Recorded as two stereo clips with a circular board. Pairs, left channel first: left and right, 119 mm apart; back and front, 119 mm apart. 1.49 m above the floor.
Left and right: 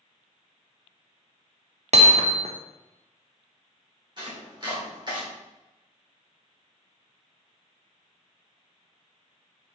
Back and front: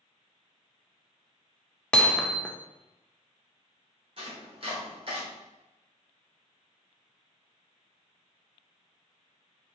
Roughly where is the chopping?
Ahead right.